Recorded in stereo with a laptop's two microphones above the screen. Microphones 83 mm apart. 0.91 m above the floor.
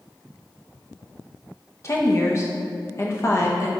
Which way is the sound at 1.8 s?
35° left (ahead or behind).